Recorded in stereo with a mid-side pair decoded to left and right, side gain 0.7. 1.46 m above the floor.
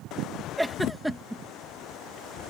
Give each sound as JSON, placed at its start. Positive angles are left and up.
{"t": 0.6, "sound": "a giggle", "azimuth_deg": 0}